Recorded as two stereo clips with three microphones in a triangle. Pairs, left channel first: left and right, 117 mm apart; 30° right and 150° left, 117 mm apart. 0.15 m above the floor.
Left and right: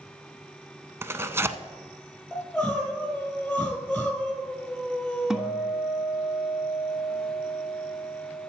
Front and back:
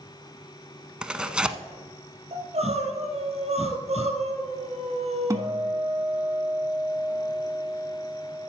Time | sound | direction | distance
1.0 | tearing paper | 135° right | 0.6 m
2.3 | crying | 175° left | 2.5 m
5.3 | a guitar | 175° right | 0.8 m